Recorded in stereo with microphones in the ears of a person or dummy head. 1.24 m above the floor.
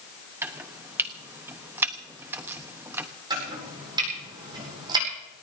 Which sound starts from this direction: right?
Chopping, at 3.3 s.